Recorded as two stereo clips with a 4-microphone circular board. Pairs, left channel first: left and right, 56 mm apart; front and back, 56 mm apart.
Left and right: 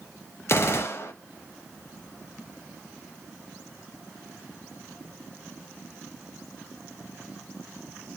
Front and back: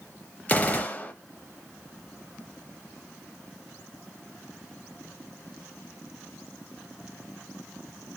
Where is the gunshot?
60° left, 0.6 m.